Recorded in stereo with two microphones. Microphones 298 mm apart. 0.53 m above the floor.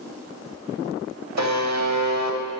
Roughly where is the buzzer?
Right.